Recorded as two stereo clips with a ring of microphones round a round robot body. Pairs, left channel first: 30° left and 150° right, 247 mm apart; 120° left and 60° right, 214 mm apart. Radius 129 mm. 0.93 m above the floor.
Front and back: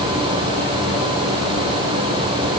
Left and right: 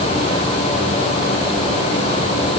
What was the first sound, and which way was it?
Only background noise.